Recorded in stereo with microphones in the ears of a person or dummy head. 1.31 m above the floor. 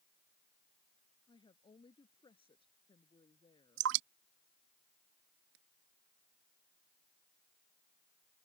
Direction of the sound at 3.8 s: 75° right (ahead or behind).